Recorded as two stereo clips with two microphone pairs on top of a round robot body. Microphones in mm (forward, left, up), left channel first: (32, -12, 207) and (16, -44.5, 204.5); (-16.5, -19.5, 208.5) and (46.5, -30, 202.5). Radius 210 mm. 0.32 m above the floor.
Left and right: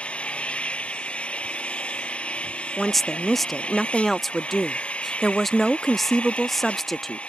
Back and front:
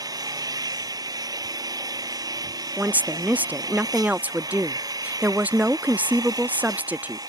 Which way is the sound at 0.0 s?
5° left.